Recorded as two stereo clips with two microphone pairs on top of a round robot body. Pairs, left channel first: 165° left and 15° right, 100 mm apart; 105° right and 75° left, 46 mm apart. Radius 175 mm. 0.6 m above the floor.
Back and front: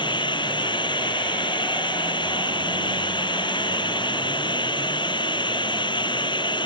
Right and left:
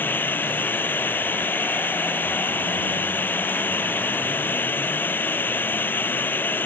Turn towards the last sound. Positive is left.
turn(degrees=-155)